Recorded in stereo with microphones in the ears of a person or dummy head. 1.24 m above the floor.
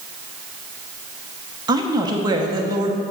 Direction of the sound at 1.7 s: 25° right (ahead or behind).